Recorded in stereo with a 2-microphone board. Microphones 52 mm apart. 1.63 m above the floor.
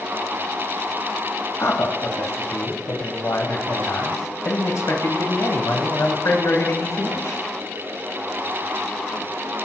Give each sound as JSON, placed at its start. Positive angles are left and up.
{"t": 1.6, "sound": "a man speaking", "side_deg": 80, "distance_m": 1.2}